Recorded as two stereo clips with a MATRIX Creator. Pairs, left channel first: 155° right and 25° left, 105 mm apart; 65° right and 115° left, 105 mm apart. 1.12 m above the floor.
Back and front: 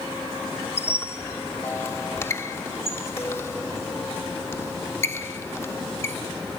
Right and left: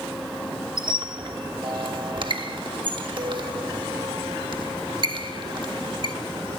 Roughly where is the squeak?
Behind left.